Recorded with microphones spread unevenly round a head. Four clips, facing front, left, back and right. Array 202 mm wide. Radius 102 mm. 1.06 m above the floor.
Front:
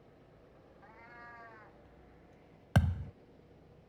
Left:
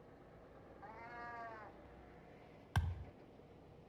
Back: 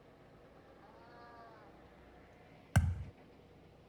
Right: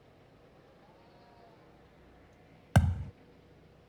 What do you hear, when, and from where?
0.8 s a cat meowing: 105° left
2.8 s a thud: 70° right